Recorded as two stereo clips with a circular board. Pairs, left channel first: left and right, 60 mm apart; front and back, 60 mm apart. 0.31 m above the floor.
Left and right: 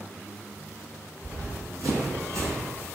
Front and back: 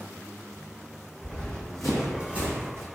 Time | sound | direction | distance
1.2 | running footsteps | 65° right | 1.2 m